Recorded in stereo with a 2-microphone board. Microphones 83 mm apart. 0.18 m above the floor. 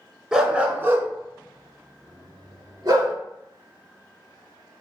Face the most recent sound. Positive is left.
turn(degrees=-50)  # may be behind; listen again after turning